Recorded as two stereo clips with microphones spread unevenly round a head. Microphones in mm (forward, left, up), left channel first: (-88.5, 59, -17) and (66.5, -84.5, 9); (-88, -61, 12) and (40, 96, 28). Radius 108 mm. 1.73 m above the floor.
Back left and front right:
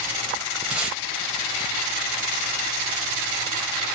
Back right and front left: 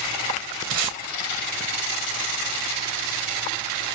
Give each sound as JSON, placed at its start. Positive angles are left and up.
{"t": 0.7, "sound": "tape being pulled", "azimuth_deg": 45, "distance_m": 0.7}